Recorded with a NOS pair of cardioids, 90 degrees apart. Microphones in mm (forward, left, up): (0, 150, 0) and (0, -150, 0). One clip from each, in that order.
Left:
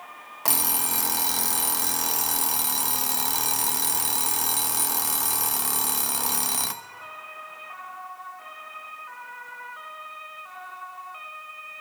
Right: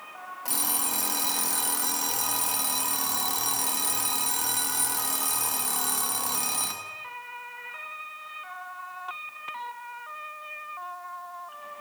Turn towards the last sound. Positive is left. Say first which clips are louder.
# left 4 dB
turn(degrees=60)